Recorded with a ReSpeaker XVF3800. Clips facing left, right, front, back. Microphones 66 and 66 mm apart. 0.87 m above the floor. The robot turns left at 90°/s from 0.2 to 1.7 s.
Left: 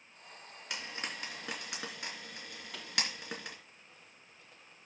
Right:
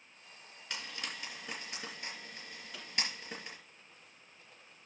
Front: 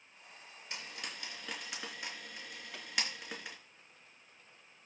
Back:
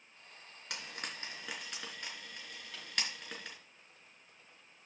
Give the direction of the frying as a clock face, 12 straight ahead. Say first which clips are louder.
Left 2 dB, back 1 dB; 6 o'clock.